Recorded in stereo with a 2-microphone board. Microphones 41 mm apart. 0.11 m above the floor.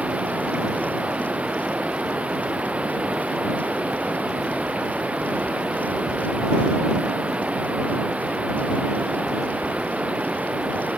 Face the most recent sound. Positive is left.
turn(degrees=-35)  # may be behind; listen again after turning